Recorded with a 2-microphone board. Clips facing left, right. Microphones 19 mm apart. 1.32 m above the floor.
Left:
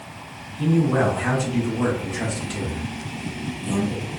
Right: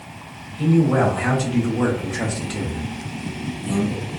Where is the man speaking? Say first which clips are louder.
Right 2 dB; 45° right (ahead or behind), 1.3 m; by 4.0 s 10° left (ahead or behind), 0.9 m.